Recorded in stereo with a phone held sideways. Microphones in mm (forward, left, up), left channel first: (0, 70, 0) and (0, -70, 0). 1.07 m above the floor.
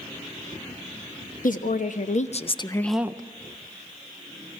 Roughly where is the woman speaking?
Left.